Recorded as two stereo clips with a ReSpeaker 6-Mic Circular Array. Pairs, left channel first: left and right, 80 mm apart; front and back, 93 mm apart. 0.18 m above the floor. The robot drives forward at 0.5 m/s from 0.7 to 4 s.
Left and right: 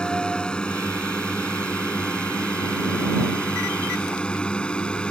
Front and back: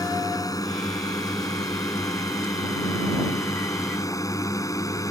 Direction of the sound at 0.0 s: 15° left.